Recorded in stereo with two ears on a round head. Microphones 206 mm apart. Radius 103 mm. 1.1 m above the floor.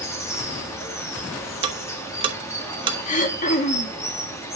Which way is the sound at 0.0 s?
10° left (ahead or behind).